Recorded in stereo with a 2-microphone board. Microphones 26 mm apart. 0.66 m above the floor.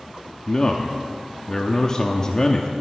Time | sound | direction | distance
0.5 | a man speaking | 30° left (ahead or behind) | 0.7 m